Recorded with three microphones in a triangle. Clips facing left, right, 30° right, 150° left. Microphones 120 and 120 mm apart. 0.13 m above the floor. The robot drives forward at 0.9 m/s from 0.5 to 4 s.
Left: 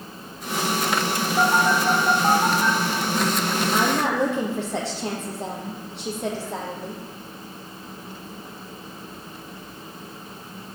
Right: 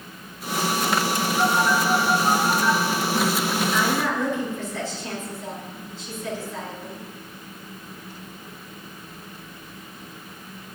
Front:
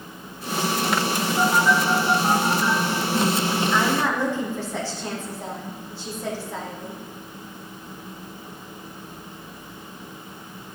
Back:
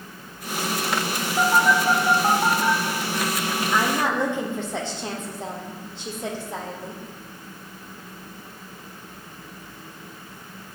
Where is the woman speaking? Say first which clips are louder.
Left 4 dB, back 2 dB; 80° left, 4.5 m.